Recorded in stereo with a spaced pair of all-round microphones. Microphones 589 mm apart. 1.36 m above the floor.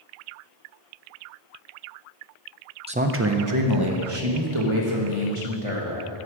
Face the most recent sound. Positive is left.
turn(degrees=-60)  # may be behind; listen again after turning